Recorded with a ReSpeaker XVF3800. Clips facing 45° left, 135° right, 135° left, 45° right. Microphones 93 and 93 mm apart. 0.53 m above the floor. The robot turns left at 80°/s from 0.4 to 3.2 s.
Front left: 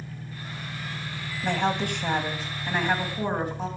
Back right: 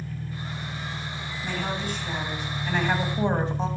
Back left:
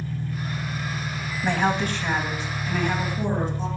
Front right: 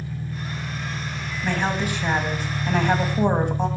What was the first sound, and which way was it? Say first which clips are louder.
An engine running: back right 4 dB, back left 1 dB; 105° left.